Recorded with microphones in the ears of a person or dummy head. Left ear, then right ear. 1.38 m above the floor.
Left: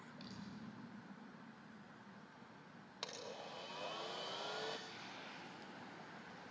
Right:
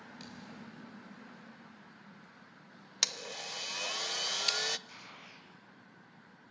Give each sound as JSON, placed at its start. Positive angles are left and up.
{"t": 0.2, "sound": "a thud", "side_deg": -50, "distance_m": 5.0}
{"t": 3.0, "sound": "a blender", "side_deg": -60, "distance_m": 1.0}
{"t": 4.9, "sound": "a gunshot", "side_deg": -45, "distance_m": 6.5}